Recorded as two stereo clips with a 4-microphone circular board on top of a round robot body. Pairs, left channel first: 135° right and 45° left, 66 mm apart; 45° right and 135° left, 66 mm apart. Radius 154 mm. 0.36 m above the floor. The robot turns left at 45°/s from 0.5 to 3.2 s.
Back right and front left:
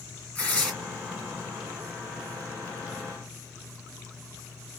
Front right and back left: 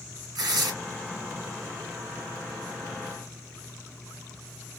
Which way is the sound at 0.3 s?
155° left.